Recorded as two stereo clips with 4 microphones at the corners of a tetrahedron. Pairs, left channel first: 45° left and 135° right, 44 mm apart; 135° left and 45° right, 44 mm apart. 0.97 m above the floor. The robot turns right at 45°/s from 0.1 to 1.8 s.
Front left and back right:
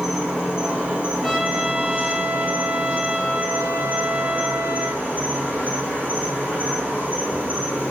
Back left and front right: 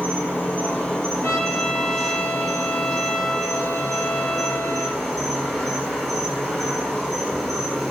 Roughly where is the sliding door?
I don't hear a sliding door.